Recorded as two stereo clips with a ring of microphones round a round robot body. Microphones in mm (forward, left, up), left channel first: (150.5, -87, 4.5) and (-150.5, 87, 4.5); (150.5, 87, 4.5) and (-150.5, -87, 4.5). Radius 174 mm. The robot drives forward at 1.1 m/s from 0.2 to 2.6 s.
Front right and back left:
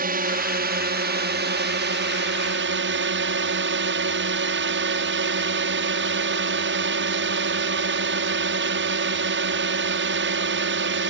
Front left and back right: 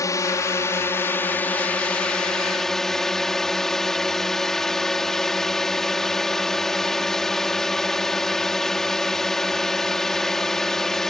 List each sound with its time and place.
0.0 s a drone: 105° left; by 11.1 s 120° left